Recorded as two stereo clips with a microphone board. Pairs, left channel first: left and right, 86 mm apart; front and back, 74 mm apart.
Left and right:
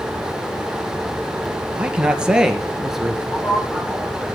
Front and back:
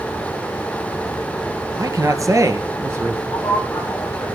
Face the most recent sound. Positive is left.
turn(degrees=30)